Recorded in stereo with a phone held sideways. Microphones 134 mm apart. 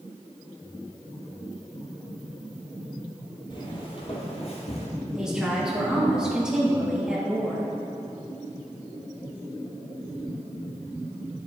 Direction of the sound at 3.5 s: 35° left (ahead or behind).